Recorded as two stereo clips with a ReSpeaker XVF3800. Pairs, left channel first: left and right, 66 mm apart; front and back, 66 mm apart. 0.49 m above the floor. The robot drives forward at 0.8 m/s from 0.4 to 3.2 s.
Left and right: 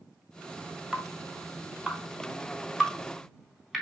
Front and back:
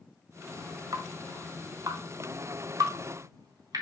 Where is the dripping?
165° right, 2 m; by 3.8 s 175° right, 4 m.